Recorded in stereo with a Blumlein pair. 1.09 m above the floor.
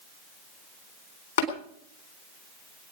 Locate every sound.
1.4 s tapping: 60° left, 3.5 m